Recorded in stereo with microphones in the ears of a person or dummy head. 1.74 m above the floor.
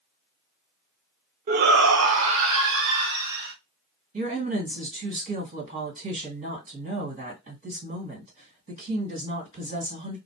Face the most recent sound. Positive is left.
turn(degrees=-40)  # may be behind; listen again after turning